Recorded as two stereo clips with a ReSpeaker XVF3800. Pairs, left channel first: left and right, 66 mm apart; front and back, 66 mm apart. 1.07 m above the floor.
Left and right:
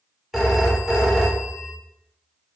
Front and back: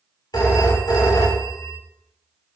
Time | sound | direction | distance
0.3 | a phone ringing | 5° right | 2.5 m